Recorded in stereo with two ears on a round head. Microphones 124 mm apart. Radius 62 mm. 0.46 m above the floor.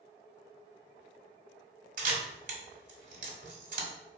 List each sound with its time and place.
2.0 s a camera shutter: 65° right (ahead or behind), 1.6 m